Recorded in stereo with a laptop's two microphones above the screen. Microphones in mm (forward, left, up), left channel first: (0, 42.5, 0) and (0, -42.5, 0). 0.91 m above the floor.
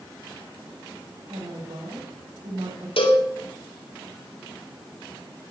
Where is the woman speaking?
70° right (ahead or behind), 5 m.